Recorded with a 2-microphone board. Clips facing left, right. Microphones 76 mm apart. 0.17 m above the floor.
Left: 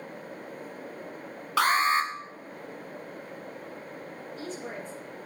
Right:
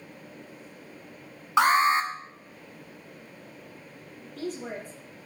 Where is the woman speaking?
70° right (ahead or behind), 4.5 m.